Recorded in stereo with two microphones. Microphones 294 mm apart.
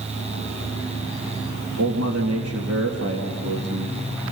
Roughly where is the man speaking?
Right.